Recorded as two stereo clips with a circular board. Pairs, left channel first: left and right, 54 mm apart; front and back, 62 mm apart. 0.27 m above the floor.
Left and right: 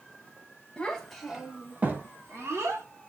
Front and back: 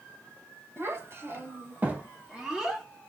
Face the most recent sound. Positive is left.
turn(degrees=-100)